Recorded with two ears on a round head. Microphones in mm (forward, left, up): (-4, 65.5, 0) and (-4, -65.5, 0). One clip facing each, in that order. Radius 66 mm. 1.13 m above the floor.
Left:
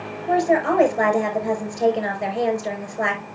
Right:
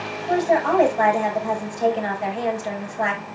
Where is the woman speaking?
40° left (ahead or behind), 4.5 m.